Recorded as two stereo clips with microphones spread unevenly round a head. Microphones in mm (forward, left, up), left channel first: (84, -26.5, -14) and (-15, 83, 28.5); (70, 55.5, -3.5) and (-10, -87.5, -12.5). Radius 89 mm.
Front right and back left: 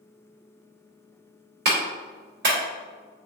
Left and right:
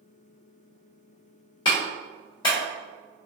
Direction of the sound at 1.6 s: 130° left.